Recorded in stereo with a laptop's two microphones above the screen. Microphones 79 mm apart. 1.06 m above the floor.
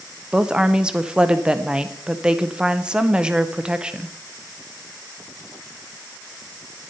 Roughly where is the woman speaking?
Centre.